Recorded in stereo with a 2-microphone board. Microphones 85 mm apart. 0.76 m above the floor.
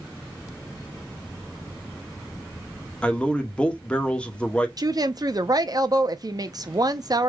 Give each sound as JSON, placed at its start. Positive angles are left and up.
{"t": 3.0, "sound": "a man speaking", "side_deg": 15, "distance_m": 1.0}
{"t": 4.8, "sound": "a woman speaking", "side_deg": -50, "distance_m": 0.6}